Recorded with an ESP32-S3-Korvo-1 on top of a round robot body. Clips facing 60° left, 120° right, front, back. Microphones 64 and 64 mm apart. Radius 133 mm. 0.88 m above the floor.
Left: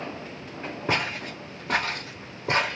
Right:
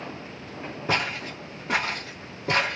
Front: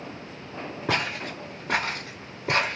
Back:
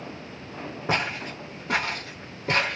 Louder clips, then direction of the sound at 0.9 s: Right 1 dB, even; 5° right.